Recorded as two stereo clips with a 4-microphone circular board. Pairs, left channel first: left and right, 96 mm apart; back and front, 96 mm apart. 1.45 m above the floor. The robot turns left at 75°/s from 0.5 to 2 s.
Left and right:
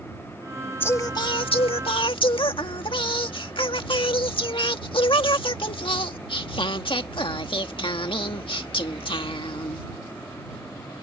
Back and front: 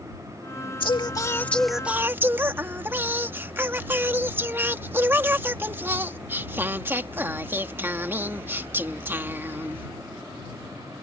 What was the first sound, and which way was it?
Singing, 155° left.